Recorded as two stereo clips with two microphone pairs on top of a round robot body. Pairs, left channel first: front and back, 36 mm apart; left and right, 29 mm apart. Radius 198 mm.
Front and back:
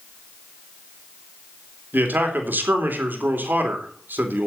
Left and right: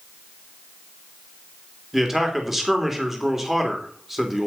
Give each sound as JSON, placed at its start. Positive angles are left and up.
{"t": 1.9, "sound": "a man speaking", "azimuth_deg": -170, "distance_m": 3.0}